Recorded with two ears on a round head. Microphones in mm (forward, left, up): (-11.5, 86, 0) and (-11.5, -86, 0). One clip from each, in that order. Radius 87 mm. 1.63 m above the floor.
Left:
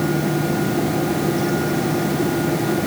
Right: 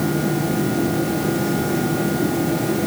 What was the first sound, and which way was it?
Only background noise.